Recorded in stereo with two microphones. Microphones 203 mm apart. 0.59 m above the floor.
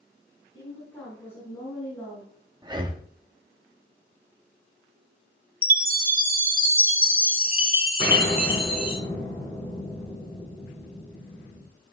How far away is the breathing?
About 1.0 m.